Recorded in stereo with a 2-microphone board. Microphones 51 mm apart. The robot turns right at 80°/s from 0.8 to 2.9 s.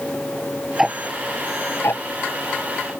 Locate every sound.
0.8 s ticking: 5° right (ahead or behind); by 2.9 s 15° left (ahead or behind)